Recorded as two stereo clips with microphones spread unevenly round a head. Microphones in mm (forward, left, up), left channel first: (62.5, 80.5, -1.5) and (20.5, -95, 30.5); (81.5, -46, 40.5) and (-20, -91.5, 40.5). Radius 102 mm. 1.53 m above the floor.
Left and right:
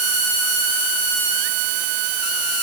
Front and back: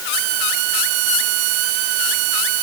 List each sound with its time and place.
Only background noise.